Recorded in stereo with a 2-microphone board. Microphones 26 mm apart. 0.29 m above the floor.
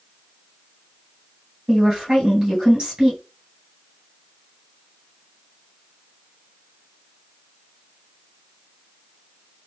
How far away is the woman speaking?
About 2 m.